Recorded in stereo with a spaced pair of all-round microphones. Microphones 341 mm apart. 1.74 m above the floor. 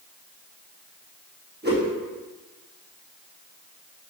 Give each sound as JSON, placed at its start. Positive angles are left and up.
{"t": 1.6, "sound": "a whoosh", "side_deg": -30, "distance_m": 1.3}